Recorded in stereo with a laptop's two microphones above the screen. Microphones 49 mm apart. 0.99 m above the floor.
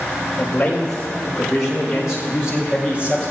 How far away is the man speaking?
About 4.5 m.